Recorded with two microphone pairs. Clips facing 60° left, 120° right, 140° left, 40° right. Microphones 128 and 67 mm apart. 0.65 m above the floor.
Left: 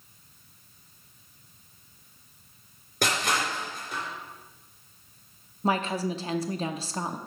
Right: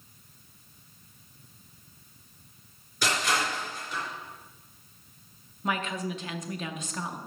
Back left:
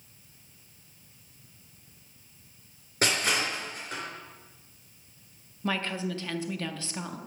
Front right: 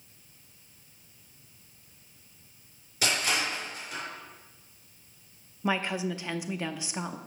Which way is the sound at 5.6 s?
25° left.